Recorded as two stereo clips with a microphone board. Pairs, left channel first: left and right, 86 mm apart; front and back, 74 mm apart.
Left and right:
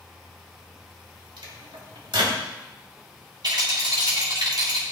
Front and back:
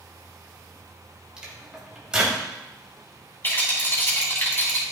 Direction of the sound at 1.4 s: 100° right.